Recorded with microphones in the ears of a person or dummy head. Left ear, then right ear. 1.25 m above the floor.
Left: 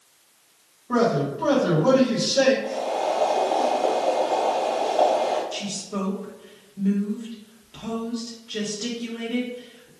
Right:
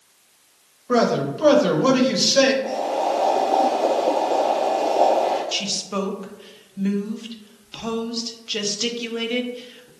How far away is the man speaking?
About 1.2 m.